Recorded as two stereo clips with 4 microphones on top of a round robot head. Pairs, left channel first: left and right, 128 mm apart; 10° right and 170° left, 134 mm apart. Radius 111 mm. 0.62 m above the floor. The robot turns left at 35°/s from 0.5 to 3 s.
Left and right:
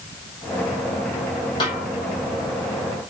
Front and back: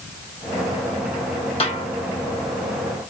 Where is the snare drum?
35° left, 4.5 m; by 1.9 s 25° left, 4.5 m.